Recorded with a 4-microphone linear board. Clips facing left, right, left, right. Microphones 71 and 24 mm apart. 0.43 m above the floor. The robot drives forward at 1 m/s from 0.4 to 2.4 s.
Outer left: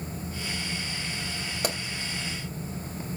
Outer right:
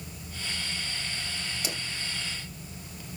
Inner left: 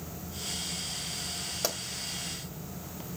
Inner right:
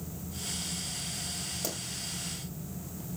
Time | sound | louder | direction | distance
1.6 | a pop | outer left 9 dB, inner left 7 dB | 55° left (ahead or behind) | 2 m